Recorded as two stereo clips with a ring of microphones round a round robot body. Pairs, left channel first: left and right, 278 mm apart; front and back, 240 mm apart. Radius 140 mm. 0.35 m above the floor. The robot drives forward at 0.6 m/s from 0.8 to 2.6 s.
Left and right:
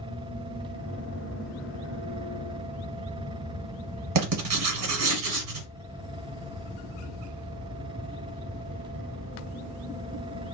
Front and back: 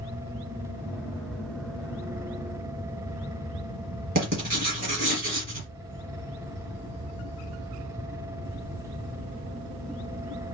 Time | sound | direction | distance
4.2 | writing | 120° right | 1.5 m